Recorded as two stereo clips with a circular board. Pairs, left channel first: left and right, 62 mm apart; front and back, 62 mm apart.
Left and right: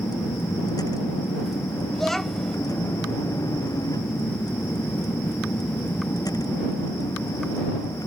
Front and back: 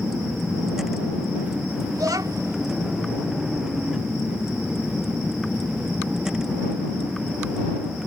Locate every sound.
0.0 s a vehicle: 95° left; by 8.1 s 100° left
1.9 s a child speaking: 175° left